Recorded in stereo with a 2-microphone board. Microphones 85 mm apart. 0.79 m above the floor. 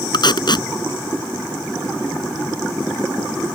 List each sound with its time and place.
0.1 s tape being pulled: 60° left (ahead or behind)